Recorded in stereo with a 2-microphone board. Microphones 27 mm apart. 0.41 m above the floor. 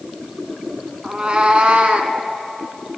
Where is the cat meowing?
35° right (ahead or behind), 1.1 m; by 2.1 s 60° right (ahead or behind), 1.4 m.